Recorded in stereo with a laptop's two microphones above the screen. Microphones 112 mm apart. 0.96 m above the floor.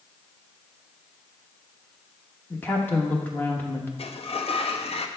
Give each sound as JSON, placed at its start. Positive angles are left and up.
{"t": 2.5, "sound": "a woman speaking", "side_deg": 15, "distance_m": 0.9}
{"t": 4.0, "sound": "a sliding door", "side_deg": 60, "distance_m": 0.8}